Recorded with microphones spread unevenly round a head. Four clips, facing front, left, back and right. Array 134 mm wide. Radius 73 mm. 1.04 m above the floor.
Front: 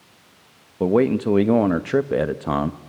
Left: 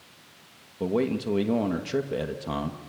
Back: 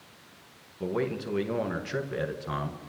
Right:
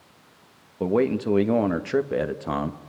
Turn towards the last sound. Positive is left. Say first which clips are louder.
# right 4 dB, front 12 dB
turn(degrees=-5)